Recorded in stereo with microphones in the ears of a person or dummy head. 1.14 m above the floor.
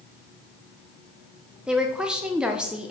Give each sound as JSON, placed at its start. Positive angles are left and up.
{"t": 1.7, "sound": "a woman speaking", "side_deg": -5, "distance_m": 0.6}